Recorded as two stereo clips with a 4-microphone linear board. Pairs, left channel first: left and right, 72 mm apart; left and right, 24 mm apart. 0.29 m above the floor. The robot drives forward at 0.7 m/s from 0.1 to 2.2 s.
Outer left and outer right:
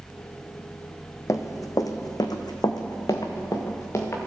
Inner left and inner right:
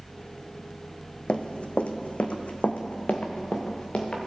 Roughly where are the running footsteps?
Left.